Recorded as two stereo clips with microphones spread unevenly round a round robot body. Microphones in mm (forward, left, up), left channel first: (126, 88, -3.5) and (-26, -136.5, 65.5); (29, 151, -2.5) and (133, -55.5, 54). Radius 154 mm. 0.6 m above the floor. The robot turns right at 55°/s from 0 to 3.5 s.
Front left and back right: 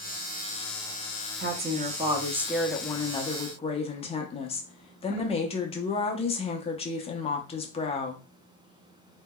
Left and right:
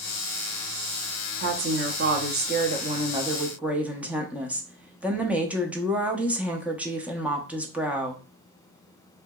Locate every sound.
1.4 s a woman speaking: 75° right, 0.7 m; by 8.2 s 40° left, 0.7 m